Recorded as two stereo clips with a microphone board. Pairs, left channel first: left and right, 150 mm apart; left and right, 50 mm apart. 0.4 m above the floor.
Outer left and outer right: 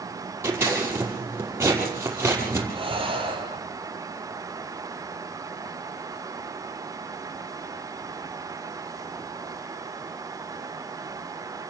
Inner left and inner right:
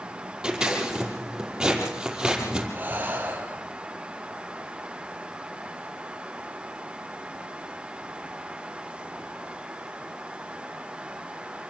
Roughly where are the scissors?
Centre.